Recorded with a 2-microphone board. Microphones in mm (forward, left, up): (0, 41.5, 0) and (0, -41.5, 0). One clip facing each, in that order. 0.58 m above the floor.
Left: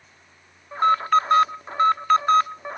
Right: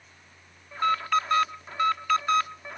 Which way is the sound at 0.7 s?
35° left (ahead or behind).